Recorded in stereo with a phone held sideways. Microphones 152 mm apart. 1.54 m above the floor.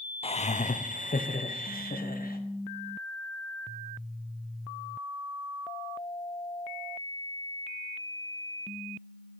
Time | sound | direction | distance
0.2 | laughter | 40° left (ahead or behind) | 0.5 m